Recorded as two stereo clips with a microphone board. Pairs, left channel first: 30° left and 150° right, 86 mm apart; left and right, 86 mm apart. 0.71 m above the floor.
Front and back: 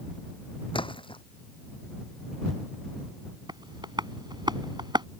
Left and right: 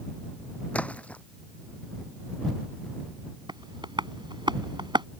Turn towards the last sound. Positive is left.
turn(degrees=-120)